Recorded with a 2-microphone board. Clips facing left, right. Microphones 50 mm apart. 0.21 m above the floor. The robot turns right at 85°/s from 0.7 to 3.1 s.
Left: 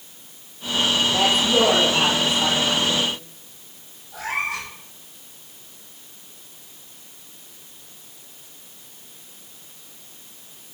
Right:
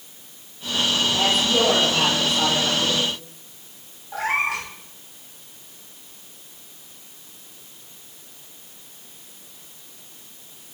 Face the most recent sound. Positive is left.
turn(degrees=-85)